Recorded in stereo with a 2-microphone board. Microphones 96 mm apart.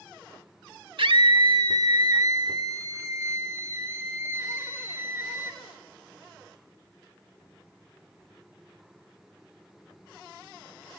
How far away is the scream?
About 1.7 m.